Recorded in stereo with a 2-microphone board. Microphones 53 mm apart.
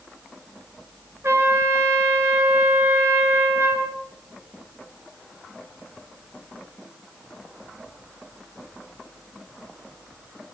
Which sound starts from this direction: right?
A trumpet, at 1.2 s.